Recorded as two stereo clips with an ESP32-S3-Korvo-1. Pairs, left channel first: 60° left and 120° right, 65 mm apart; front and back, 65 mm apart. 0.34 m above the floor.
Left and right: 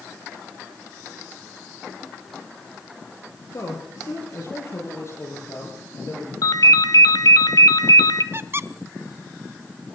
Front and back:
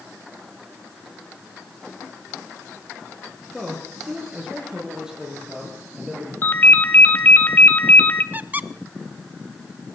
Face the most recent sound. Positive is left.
turn(degrees=-135)